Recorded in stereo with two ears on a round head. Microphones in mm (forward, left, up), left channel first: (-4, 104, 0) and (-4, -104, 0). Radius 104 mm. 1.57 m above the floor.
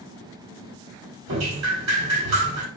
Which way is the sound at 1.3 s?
80° right.